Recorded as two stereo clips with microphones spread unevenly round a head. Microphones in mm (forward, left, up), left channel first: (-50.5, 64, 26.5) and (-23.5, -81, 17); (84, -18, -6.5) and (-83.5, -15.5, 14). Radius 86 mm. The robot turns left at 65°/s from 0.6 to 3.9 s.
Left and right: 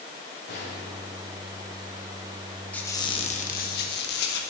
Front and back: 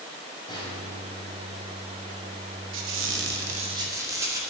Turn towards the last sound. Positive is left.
turn(degrees=105)